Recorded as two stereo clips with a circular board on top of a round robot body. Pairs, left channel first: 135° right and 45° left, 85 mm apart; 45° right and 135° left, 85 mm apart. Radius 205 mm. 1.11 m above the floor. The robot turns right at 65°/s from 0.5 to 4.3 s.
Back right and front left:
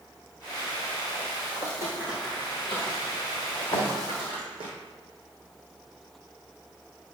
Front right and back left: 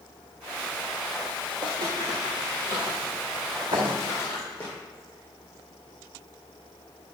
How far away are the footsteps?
About 1.5 m.